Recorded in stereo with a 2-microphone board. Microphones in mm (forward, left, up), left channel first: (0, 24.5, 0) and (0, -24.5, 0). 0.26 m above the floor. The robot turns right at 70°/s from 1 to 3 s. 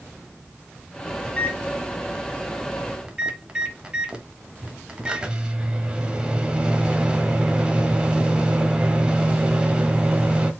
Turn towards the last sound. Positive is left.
turn(degrees=-20)  # may be behind; listen again after turning